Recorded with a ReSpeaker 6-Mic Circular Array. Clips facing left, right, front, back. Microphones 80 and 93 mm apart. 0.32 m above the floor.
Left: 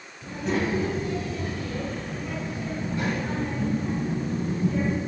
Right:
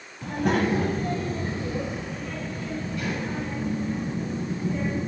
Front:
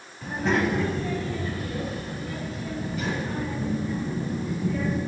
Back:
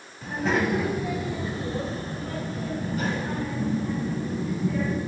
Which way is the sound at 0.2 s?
90° right.